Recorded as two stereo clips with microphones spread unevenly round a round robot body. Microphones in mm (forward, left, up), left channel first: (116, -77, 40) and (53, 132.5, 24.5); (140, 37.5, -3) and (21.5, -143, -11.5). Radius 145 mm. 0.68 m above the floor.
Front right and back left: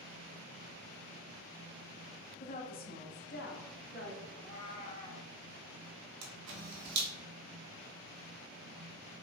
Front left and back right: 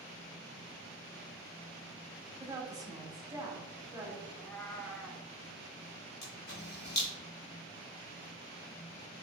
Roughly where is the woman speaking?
Right.